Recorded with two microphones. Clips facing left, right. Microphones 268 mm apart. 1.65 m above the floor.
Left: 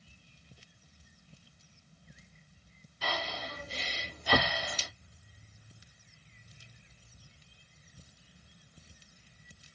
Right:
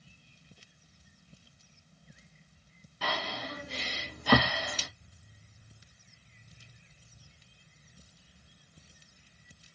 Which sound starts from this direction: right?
Breathing, at 3.0 s.